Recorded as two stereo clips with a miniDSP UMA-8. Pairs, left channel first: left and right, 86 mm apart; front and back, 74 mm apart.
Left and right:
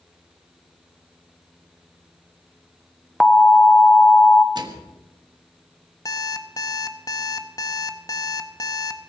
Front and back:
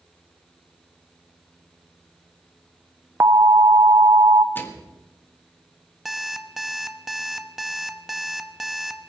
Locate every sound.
3.2 s an alarm: 170° left, 0.8 m
4.5 s a microwave: 60° right, 1.5 m
6.0 s an alarm clock: 90° left, 0.9 m